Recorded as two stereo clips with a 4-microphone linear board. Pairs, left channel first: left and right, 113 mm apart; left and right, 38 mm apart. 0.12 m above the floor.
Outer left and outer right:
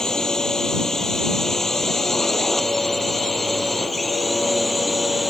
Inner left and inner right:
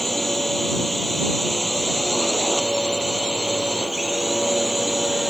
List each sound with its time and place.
0.0 s a drone: 5° left (ahead or behind); by 5.3 s centre (ahead or behind)